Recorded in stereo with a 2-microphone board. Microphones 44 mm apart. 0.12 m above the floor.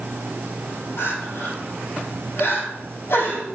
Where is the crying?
60° left (ahead or behind), 4 m.